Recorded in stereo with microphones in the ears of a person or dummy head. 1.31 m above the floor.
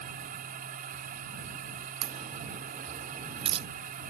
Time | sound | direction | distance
0.0 | a machine running | 45° right (ahead or behind) | ?
2.0 | a crack | 25° right (ahead or behind) | ?